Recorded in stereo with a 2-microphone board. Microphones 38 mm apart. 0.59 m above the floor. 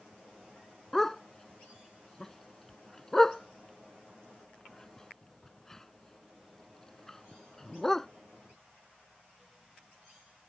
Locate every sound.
0.9 s a dog barking: 10° left (ahead or behind)